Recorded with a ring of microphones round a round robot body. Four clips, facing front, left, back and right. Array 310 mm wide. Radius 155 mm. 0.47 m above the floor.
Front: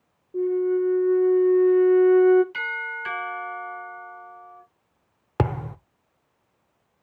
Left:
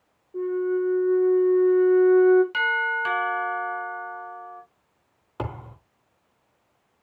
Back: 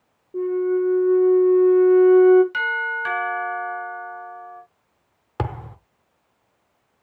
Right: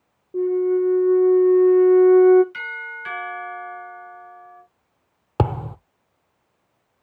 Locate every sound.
0.3 s a flute: 110° right, 1.6 m
2.5 s a doorbell: 120° left, 4.5 m
5.4 s a thud: 65° right, 0.5 m